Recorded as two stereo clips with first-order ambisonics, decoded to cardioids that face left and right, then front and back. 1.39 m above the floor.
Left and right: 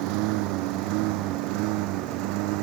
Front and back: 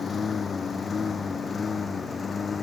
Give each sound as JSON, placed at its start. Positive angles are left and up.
{"t": 0.0, "sound": "a lawn mower", "azimuth_deg": -70}